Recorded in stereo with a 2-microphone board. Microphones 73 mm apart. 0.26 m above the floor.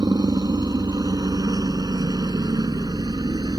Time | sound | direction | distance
0.0 | a helicopter | 60° right (ahead or behind) | ?